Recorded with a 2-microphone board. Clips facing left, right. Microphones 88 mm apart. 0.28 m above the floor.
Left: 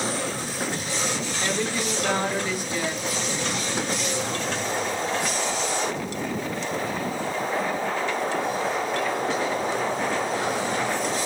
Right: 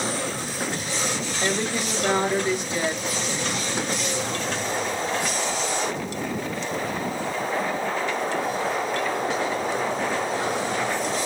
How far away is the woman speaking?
About 1.0 m.